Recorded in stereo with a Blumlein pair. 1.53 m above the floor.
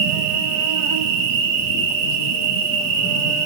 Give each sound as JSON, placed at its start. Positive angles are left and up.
{"t": 0.0, "sound": "an insect", "azimuth_deg": -45, "distance_m": 0.9}